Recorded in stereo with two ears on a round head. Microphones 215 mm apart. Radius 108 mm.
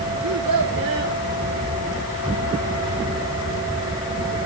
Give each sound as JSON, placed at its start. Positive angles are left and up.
{"t": 0.2, "sound": "a child speaking", "side_deg": -65, "distance_m": 3.0}